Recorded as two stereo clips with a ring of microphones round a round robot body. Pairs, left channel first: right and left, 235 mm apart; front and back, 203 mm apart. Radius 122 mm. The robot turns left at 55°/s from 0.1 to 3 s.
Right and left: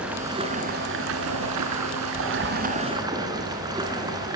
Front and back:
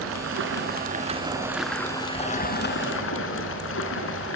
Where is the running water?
175° left, 3 m; by 4.4 s 15° left, 3 m.